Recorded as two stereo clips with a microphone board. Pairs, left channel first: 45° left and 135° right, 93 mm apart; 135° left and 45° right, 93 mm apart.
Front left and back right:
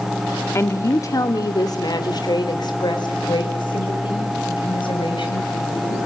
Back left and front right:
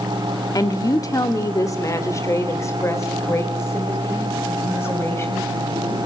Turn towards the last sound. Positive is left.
turn(degrees=70)